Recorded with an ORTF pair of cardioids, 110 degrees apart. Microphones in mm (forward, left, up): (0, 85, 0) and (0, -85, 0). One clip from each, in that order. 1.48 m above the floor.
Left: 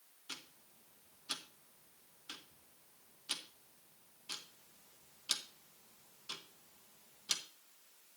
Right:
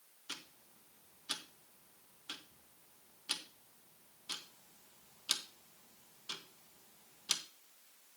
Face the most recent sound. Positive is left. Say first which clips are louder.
# right 2 dB
turn(degrees=-10)